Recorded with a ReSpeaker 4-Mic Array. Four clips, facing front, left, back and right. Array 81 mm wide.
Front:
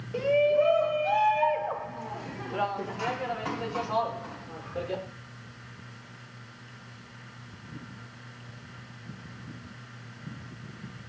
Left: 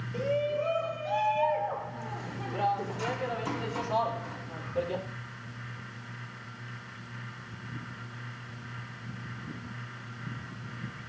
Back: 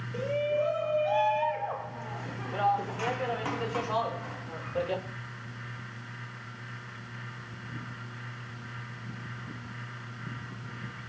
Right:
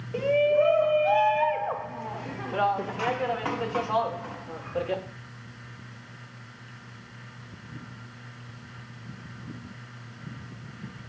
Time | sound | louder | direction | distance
0.1 | a shout | right 8 dB, front 6 dB | 65° right | 2.5 m